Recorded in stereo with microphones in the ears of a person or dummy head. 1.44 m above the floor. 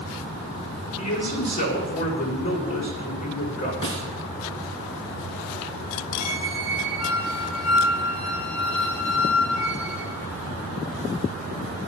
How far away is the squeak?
About 2.5 m.